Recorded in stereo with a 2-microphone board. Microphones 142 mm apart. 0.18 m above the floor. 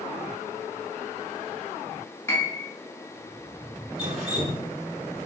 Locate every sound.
2.3 s a piano: 15° left (ahead or behind), 0.9 m
4.0 s dripping: 50° right (ahead or behind), 1.4 m